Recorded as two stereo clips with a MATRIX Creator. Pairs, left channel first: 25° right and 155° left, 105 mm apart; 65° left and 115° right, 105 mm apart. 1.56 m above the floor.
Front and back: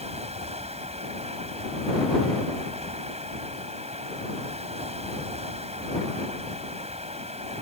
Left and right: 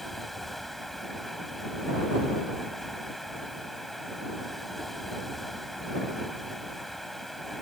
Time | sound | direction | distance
0.0 | running water | 155° left | ?